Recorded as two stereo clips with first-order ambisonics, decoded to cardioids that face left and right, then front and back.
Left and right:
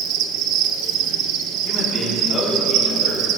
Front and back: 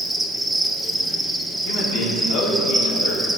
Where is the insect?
95° right, 0.7 m.